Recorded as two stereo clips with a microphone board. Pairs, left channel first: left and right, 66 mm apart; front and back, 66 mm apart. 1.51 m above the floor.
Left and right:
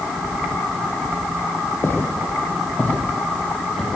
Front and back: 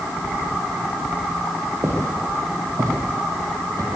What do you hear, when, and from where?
1.8 s footsteps: 140° left, 3 m; by 4.0 s straight behind, 3 m